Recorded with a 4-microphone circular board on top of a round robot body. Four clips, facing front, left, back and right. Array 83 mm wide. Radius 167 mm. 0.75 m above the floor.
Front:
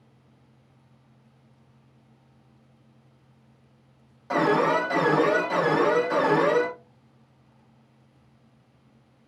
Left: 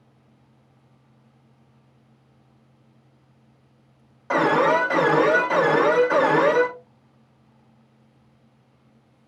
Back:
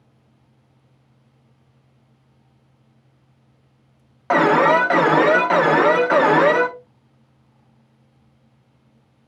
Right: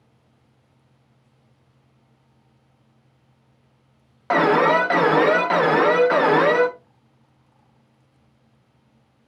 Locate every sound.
4.3 s an alarm: 155° right, 0.9 m